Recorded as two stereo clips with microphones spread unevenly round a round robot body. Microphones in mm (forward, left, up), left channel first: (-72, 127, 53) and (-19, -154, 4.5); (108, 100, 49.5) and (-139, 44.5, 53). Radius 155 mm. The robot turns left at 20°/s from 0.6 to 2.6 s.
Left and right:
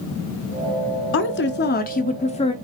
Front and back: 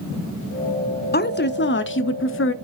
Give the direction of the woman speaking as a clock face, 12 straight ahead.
10 o'clock.